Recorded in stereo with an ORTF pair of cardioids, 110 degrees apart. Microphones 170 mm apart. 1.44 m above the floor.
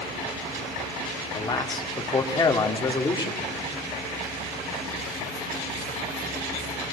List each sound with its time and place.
1.3 s a man speaking: 25° left, 3 m